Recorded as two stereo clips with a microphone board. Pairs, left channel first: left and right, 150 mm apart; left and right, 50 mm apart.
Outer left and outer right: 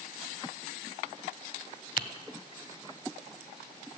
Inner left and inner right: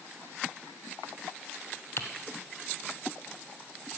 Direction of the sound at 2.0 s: 60° left (ahead or behind).